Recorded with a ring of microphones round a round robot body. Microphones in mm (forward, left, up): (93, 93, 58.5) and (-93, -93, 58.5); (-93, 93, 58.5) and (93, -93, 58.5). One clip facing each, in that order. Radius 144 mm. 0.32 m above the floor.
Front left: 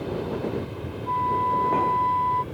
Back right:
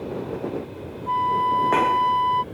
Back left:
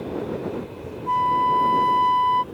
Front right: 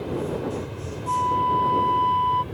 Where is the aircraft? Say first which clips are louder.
Even, even; 5° left; by 2.5 s 30° right.